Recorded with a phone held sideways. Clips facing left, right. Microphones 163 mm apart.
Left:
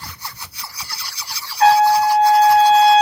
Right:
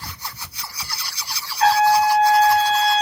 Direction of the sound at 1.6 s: 60° left (ahead or behind).